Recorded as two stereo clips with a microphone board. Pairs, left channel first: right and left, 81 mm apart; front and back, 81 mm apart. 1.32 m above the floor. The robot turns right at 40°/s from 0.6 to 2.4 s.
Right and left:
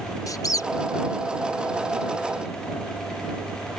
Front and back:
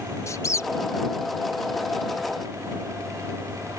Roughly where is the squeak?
Ahead right.